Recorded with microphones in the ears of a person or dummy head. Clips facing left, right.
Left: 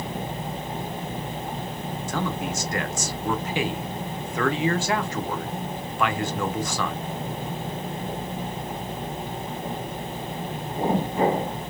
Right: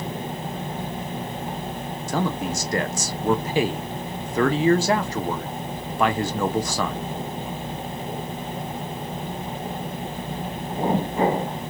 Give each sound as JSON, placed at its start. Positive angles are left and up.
{"t": 2.1, "sound": "a man speaking", "side_deg": -35, "distance_m": 0.5}